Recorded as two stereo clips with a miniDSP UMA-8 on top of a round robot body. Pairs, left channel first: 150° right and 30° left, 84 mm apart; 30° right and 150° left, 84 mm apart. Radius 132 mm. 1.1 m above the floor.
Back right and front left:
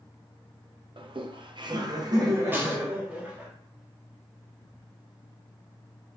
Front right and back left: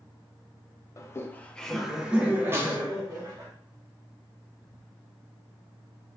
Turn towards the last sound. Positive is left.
turn(degrees=95)